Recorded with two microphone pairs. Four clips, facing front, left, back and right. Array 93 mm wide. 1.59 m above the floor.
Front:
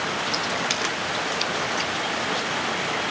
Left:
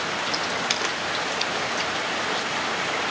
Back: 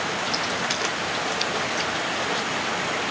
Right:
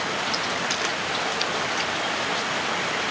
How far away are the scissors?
About 5.5 m.